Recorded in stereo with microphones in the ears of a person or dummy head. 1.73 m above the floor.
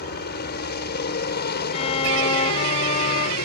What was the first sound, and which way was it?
A helicopter, 55° left (ahead or behind).